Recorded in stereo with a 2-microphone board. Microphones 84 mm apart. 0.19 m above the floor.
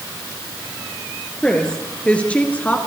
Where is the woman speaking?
10° left (ahead or behind), 4 m; by 2.8 s 20° left (ahead or behind), 2.5 m.